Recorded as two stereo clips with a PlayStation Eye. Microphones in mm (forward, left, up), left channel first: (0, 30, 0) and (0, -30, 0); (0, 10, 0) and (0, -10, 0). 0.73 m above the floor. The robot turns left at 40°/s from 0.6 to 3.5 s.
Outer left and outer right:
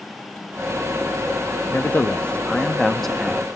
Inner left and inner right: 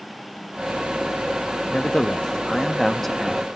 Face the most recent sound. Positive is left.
turn(degrees=-15)